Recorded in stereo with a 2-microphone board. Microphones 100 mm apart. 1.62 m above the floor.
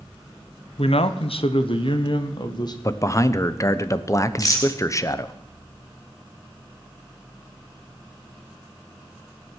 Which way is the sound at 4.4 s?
35° left (ahead or behind).